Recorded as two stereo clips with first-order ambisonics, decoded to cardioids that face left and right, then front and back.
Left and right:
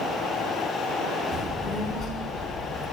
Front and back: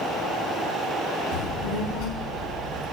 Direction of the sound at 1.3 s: 20° right.